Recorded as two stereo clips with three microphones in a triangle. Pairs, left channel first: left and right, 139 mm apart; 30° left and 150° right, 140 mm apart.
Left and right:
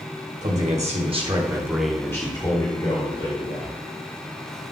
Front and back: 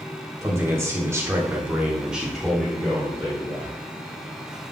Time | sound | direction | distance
0.4 | a man speaking | 80° right | 2.5 m